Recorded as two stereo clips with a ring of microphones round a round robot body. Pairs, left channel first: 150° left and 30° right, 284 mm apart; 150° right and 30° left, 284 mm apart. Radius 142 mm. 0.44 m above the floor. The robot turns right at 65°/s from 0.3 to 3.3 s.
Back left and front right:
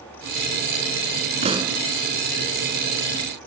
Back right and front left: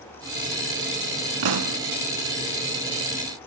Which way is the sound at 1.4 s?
35° left.